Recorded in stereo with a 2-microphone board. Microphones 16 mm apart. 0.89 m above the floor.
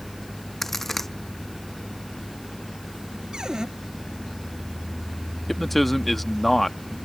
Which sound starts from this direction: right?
A cupboard door, at 3.3 s.